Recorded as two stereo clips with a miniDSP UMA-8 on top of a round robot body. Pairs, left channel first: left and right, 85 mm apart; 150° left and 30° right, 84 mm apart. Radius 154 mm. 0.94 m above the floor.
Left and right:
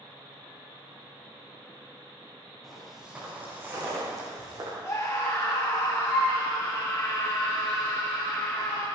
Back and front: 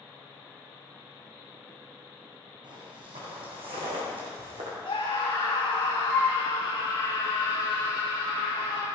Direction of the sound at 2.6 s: 5° left.